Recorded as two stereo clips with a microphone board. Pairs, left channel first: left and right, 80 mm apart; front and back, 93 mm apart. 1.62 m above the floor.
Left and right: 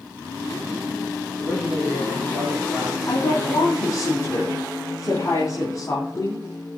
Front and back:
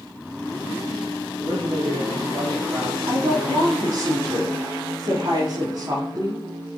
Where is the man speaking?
170° right, 5 m.